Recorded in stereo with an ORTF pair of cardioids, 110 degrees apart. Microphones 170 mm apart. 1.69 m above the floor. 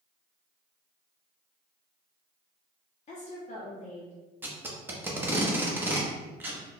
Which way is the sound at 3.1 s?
45° left.